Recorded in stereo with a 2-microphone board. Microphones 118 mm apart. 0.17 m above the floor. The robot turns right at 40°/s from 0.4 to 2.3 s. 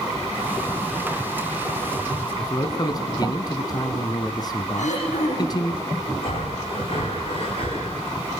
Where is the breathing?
50° left (ahead or behind), 8.5 m.